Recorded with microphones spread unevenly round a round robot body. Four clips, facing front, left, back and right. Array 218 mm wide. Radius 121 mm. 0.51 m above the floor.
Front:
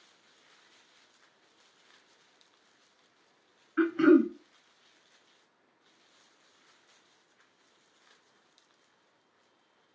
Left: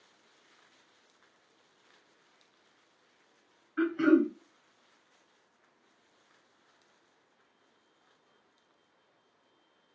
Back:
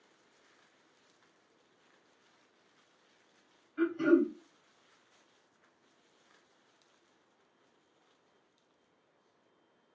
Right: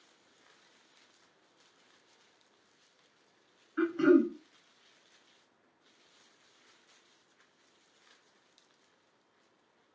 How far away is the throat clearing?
About 1.2 m.